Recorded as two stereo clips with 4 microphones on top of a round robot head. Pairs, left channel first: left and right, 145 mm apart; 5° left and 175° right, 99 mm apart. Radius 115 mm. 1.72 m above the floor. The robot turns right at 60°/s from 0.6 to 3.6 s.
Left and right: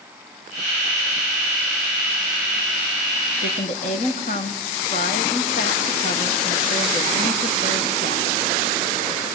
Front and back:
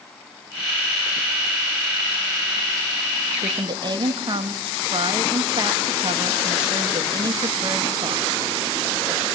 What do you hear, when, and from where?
3.4 s a woman speaking: 130° left, 0.9 m; by 8.3 s 145° left, 0.9 m